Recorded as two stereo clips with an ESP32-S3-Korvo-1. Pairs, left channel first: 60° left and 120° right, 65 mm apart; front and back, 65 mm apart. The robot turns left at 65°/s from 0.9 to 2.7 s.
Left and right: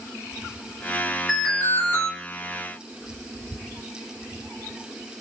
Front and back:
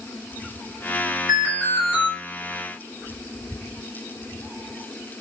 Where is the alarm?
140° left, 1.7 m; by 2.1 s 85° left, 1.7 m.